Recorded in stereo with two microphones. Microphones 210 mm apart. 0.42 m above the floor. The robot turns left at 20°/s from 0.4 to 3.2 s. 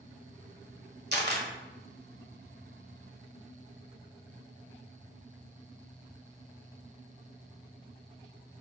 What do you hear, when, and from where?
1.1 s a camera shutter: 55° right (ahead or behind), 1.3 m; by 1.5 s 50° right (ahead or behind), 1.3 m